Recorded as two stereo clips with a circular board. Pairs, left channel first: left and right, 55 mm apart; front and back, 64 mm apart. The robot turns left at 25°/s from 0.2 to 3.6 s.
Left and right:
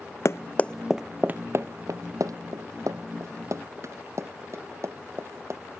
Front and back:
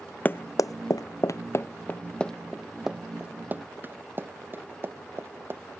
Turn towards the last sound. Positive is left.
turn(degrees=-125)